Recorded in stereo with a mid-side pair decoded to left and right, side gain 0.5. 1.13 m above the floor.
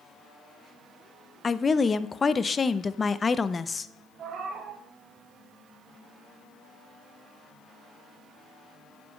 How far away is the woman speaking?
About 0.7 m.